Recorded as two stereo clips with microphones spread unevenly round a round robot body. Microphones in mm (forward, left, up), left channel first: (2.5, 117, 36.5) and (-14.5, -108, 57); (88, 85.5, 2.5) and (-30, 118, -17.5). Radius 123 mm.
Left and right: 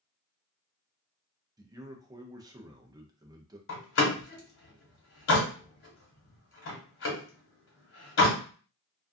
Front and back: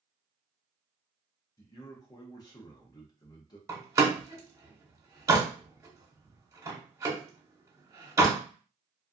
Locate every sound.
1.6 s a man speaking: 35° right, 0.5 m
3.7 s a door slam: 105° left, 1.2 m